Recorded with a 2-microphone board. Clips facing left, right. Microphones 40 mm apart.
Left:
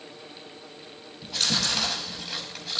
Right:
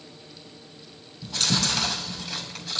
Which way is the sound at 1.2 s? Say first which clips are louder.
Right 1 dB; 5° left (ahead or behind).